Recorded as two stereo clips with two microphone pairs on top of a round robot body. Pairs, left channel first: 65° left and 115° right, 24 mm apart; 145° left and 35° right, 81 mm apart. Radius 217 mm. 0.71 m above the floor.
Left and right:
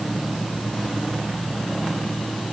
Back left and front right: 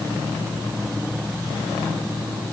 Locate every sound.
Only background noise.